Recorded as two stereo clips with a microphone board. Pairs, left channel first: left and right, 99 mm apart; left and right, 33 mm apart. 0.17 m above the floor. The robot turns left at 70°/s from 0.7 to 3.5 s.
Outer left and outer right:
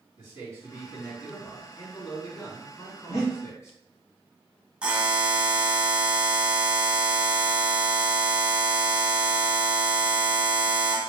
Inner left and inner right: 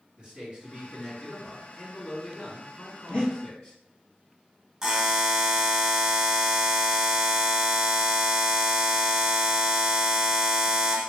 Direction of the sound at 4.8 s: 10° right (ahead or behind).